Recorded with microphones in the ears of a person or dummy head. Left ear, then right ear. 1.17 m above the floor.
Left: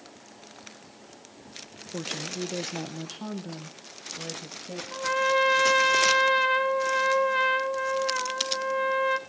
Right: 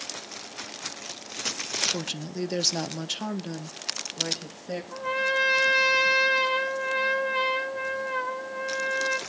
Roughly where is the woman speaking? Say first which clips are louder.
Even; centre.